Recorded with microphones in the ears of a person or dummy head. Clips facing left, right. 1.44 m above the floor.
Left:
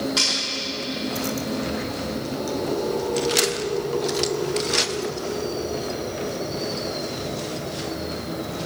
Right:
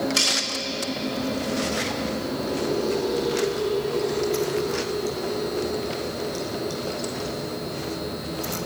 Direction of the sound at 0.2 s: 45° right (ahead or behind).